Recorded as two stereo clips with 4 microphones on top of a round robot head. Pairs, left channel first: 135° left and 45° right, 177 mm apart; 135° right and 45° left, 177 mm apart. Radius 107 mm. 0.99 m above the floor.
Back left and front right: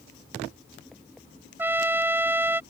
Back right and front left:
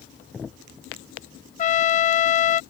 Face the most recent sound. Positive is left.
turn(degrees=-120)